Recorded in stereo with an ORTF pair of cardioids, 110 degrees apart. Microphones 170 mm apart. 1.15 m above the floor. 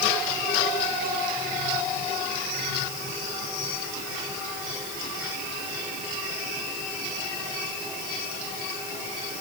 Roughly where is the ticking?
I don't hear ticking.